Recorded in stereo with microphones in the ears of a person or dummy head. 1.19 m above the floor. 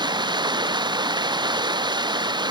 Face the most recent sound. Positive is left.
turn(degrees=-25)  # may be behind; listen again after turning